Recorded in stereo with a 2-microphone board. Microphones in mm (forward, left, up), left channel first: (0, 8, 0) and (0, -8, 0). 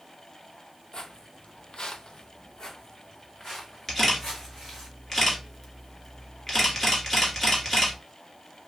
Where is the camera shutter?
10° left (ahead or behind), 1.7 m.